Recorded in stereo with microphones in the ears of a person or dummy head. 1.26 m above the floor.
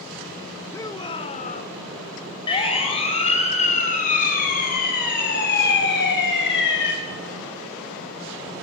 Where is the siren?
30° left (ahead or behind), 7 m; by 6.9 s 70° left (ahead or behind), 6.5 m.